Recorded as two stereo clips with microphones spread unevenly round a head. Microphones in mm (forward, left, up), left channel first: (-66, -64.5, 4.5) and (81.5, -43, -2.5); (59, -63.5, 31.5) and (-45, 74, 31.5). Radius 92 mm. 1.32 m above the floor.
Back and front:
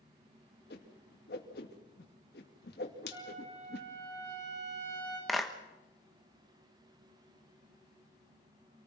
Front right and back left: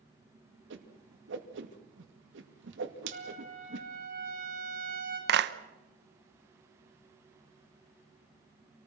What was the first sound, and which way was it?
A whoosh, 145° left.